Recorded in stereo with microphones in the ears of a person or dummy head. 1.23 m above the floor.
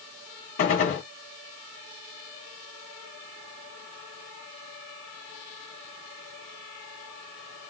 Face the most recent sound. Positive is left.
turn(degrees=40)  # may be behind; listen again after turning